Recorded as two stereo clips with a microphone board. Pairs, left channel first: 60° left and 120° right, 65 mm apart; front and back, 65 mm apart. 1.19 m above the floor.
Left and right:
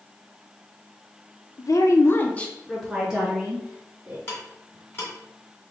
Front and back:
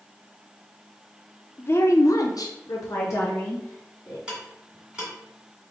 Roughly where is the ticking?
Left.